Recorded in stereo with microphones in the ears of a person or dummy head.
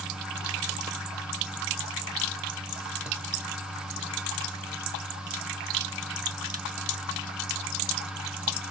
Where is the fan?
5° right (ahead or behind), 1.3 m.